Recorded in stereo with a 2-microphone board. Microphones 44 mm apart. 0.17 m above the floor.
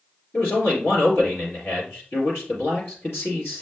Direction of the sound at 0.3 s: 65° left (ahead or behind).